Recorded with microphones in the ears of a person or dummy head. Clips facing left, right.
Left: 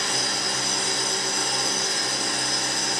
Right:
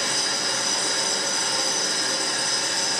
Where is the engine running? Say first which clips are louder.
Even; 50° right (ahead or behind), 0.8 m.